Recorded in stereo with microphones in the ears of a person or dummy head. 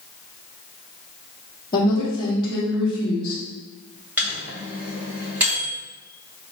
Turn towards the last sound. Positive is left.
turn(degrees=-10)  # may be behind; listen again after turning